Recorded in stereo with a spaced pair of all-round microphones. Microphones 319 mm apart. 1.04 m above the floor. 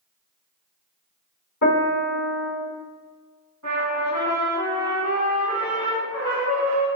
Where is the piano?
80° left, 1.8 m.